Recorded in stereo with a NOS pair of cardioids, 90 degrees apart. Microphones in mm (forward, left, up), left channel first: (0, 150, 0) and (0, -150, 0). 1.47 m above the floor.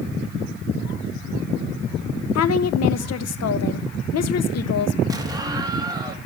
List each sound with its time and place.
2.4 s a woman speaking: 55° left, 1.4 m
5.1 s an explosion: 10° right, 3 m